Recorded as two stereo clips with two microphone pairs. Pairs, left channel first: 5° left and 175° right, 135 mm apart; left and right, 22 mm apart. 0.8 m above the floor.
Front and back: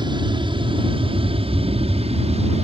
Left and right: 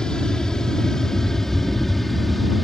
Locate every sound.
0.0 s an aircraft: 135° left; by 2.6 s 175° left